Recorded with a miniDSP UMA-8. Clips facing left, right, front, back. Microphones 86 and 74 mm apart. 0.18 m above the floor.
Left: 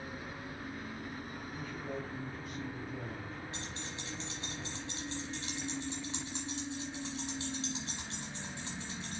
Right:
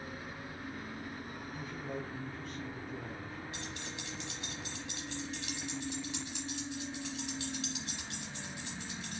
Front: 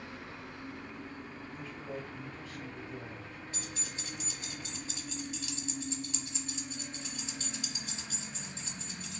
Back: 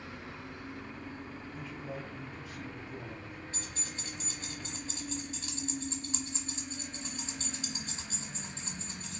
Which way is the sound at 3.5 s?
140° left.